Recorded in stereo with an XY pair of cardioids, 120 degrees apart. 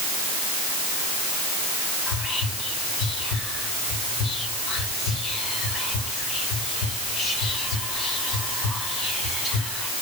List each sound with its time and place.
2.1 s whispering: 60° left, 4.5 m